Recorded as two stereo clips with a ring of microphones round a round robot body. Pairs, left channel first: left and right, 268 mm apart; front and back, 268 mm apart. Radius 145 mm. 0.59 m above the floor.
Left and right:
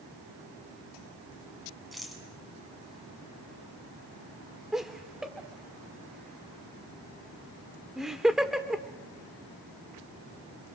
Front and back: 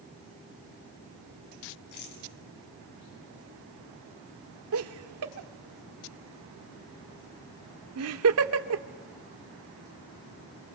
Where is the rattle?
Straight ahead, 6 m.